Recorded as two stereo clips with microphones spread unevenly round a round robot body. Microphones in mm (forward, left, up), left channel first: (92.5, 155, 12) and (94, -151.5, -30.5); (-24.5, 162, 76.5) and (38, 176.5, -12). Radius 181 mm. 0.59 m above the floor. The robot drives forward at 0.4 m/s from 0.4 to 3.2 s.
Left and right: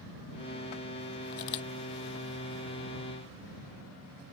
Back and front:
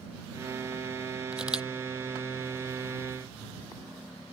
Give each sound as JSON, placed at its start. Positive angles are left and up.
{"t": 1.3, "sound": "a camera shutter", "azimuth_deg": 95}